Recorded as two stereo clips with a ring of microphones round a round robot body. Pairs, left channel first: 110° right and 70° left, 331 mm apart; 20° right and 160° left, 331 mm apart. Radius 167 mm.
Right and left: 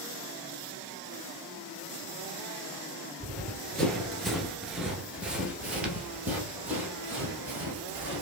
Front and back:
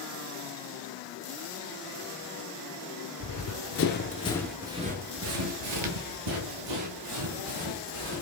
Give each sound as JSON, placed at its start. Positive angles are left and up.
{"t": 3.2, "sound": "running footsteps", "azimuth_deg": -25, "distance_m": 1.0}